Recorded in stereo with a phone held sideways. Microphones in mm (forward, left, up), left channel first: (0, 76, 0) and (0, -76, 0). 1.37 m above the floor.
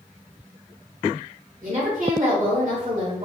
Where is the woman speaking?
55° right (ahead or behind), 2.0 m.